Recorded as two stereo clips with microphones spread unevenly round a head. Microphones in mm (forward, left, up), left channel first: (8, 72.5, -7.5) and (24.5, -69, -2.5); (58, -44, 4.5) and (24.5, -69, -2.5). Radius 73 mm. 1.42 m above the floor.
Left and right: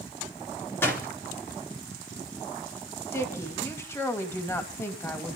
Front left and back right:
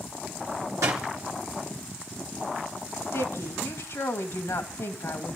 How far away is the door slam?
About 2 m.